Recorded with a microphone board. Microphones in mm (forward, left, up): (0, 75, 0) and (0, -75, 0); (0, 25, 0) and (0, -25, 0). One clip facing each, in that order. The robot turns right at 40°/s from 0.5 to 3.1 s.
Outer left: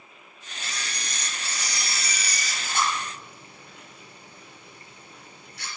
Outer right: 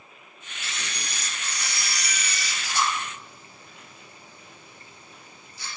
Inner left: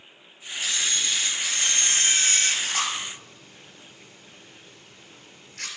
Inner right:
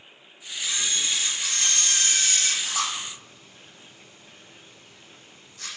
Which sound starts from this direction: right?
A camera shutter, at 0.6 s.